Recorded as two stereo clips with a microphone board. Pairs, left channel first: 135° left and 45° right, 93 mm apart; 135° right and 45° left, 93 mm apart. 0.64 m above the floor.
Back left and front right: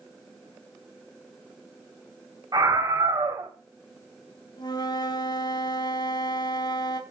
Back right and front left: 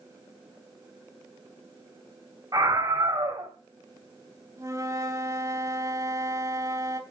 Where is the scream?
Straight ahead, 3.5 m.